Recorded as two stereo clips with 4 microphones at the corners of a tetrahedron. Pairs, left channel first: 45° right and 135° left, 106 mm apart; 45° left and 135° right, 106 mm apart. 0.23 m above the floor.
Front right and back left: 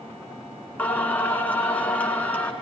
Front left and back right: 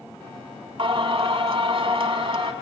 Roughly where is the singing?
Behind right.